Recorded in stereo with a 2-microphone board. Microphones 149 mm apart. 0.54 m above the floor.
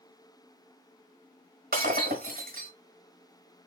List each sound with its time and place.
1.7 s breaking glass: 80° right, 1.3 m